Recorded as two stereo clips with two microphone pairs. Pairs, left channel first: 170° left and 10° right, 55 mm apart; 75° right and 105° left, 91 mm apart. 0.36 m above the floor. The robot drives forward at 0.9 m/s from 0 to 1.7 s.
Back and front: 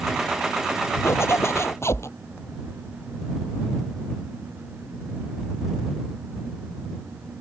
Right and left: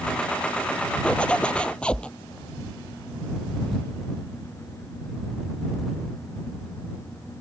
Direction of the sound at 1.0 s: 155° right.